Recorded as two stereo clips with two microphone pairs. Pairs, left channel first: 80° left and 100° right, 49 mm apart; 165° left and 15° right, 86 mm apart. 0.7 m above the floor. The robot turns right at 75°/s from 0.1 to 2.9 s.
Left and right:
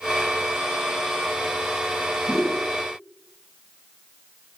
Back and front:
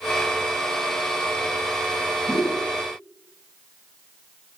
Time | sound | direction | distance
2.3 | a whoosh | 135° left | 1.1 m